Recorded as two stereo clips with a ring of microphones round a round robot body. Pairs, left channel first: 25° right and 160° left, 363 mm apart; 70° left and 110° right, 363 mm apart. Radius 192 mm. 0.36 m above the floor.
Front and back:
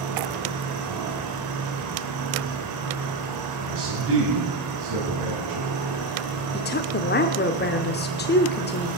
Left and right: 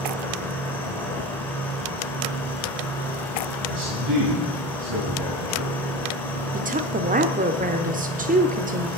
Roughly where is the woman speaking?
Ahead right.